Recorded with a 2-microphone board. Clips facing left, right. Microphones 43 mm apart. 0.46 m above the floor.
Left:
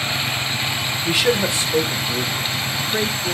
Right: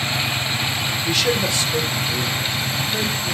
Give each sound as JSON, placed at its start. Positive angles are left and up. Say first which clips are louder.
{"t": 1.1, "sound": "a man speaking", "louder": "left 3 dB", "side_deg": 15, "distance_m": 1.0}